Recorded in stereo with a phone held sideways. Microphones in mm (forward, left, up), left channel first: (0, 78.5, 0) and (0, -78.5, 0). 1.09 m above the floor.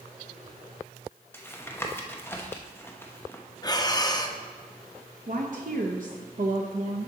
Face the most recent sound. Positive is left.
turn(degrees=-60)  # may be behind; listen again after turning